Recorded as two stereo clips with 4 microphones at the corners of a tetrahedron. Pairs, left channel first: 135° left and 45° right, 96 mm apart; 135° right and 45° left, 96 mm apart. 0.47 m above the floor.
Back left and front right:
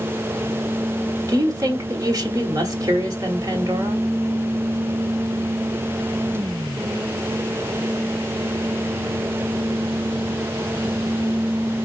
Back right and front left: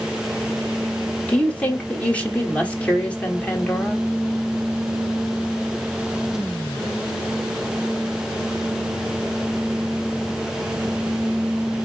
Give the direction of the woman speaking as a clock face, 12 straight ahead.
2 o'clock.